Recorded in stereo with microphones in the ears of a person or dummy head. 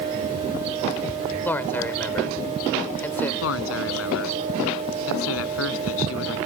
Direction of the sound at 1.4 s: Centre (ahead or behind).